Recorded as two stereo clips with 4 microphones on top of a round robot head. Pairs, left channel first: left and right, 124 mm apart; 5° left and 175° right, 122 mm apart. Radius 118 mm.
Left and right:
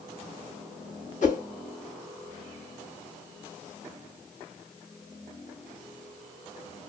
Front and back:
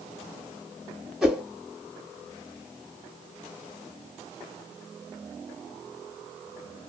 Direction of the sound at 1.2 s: 100° left.